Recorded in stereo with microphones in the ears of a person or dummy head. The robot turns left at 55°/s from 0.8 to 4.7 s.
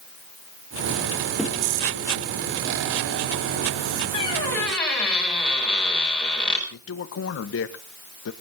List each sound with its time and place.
1.4 s a thud: 5° left (ahead or behind), 4 m; by 1.6 s 5° right (ahead or behind), 4 m
4.1 s a squeak: 35° left, 5.5 m; by 6.6 s 5° left, 5.5 m
6.7 s a man speaking: 75° left (ahead or behind), 1.2 m